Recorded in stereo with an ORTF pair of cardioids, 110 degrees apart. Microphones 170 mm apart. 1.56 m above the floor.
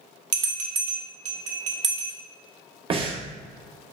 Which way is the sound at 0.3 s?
45° right.